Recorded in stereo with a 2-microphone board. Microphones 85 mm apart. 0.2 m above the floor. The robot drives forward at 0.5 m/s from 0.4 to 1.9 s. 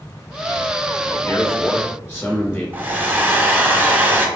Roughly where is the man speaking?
Left.